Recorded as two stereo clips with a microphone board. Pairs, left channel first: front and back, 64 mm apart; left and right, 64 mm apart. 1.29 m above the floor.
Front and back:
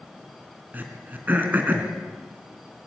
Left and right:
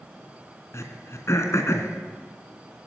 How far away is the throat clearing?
About 3 m.